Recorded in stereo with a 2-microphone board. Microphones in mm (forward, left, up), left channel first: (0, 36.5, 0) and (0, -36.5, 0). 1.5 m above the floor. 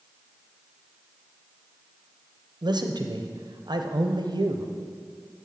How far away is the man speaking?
About 0.8 m.